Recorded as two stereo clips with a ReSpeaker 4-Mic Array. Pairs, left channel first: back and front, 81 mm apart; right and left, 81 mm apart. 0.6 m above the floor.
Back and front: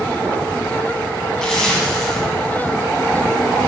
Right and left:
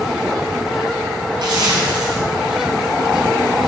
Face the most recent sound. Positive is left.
turn(degrees=100)